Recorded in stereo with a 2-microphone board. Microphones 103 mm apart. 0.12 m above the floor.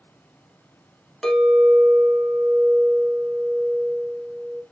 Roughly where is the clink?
Centre.